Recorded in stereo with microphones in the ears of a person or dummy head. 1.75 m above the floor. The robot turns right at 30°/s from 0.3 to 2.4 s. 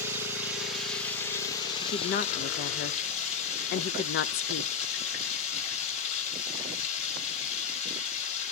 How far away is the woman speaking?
About 0.6 m.